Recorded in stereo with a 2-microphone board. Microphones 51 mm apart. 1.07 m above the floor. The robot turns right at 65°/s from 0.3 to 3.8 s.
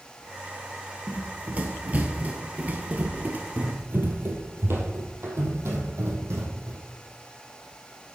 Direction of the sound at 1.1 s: 25° right (ahead or behind).